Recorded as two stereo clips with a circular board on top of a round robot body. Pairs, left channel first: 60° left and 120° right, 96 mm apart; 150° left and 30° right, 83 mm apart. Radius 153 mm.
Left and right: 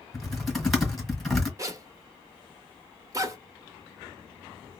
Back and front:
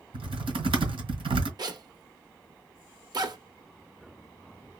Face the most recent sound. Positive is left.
turn(degrees=-65)